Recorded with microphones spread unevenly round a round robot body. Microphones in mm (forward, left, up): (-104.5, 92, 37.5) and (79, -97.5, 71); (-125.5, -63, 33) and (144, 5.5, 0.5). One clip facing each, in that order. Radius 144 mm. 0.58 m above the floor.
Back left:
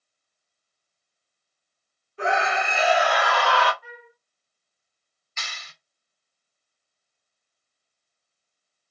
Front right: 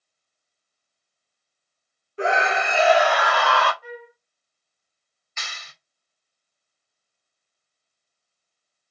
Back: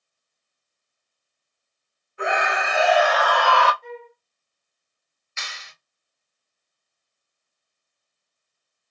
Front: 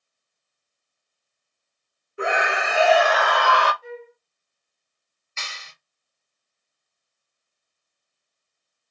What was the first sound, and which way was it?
A scream, 35° right.